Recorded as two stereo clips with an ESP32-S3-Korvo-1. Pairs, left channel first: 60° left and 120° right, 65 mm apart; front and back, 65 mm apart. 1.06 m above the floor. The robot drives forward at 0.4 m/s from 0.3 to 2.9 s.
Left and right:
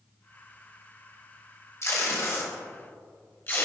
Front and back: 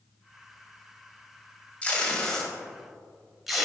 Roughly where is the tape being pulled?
Ahead left.